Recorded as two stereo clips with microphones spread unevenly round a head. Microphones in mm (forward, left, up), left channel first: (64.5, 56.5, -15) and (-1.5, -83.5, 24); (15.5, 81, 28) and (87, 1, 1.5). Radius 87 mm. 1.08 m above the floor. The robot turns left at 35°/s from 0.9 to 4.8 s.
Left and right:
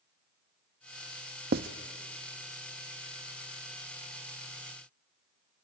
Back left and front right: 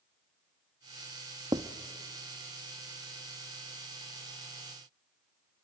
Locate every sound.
1.5 s writing: 125° right, 0.7 m; by 1.7 s 130° right, 0.7 m